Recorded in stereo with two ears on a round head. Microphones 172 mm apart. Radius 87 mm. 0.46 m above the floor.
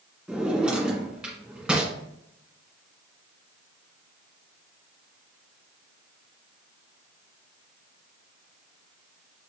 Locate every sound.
0.3 s a drawer: 5° right (ahead or behind), 1.8 m